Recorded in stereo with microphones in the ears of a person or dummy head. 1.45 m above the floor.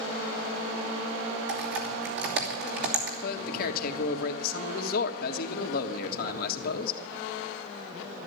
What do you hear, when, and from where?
1.5 s typing on a keyboard: 65° right (ahead or behind), 3 m
3.2 s a man speaking: 55° left (ahead or behind), 1.6 m